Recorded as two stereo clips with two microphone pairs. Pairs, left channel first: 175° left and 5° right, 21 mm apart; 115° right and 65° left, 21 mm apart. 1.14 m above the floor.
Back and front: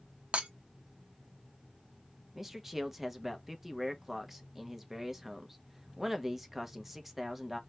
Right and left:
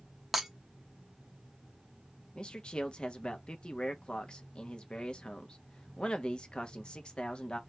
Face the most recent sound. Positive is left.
turn(degrees=-80)